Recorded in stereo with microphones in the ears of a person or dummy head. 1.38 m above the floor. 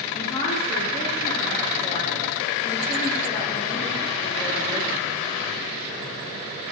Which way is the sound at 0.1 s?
20° left (ahead or behind).